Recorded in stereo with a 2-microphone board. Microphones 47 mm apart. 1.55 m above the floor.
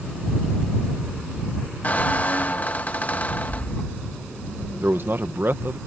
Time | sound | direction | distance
1.8 | a squeak | 35° left (ahead or behind) | ?
4.8 | a man speaking | 55° right (ahead or behind) | ?